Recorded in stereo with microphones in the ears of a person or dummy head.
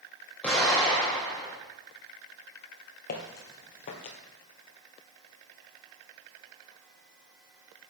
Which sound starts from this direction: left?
Footsteps, at 3.1 s.